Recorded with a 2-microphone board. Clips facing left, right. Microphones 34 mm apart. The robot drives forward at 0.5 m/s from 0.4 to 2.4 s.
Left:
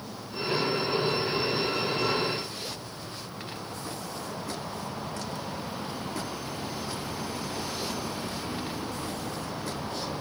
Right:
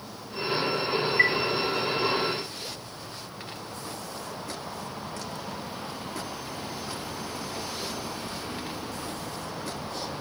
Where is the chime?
75° right (ahead or behind).